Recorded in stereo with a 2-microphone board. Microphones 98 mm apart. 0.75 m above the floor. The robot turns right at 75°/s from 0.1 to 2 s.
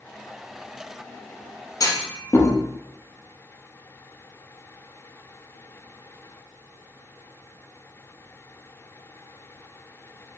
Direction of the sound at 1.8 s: 40° left (ahead or behind).